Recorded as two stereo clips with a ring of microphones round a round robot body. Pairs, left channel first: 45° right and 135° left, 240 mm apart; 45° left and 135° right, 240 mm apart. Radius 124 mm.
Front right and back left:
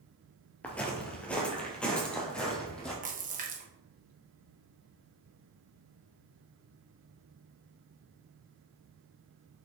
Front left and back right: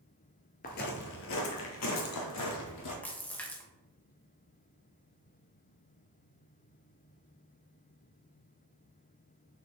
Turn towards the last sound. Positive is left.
turn(degrees=125)